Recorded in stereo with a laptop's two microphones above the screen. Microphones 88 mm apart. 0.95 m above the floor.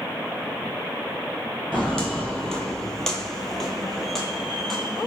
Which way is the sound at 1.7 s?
5° left (ahead or behind).